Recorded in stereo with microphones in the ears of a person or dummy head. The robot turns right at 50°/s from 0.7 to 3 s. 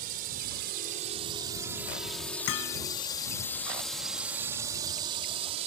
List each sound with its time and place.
0.0 s a drone: 45° right (ahead or behind); by 5.7 s 35° right (ahead or behind)
2.5 s hammering: 80° left; by 2.8 s 60° left (ahead or behind)